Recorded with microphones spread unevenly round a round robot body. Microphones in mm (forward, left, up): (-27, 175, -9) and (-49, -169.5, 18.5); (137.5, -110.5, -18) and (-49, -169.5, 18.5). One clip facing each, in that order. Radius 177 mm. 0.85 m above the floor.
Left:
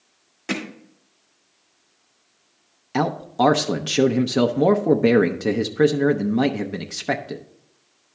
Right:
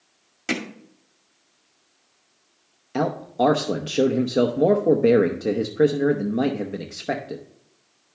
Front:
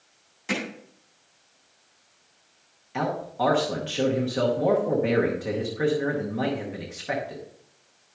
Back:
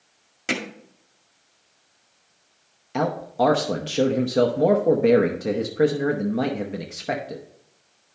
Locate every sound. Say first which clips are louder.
0.5 s hammering: even, back 1 dB; 150° right, 1.8 m
2.9 s a man speaking: left 1 dB, back 5 dB; 145° left, 0.6 m